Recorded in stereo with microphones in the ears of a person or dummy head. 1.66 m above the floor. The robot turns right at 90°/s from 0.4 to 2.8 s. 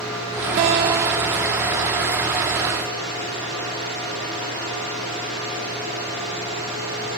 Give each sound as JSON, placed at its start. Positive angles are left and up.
{"t": 0.6, "sound": "a guitar", "azimuth_deg": -65, "distance_m": 1.2}